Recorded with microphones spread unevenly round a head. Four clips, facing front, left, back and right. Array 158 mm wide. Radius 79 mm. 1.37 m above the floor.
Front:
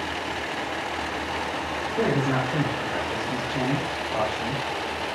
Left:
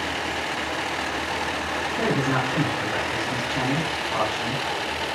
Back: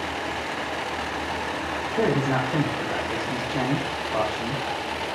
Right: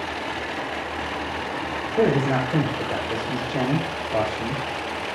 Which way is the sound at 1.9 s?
120° right.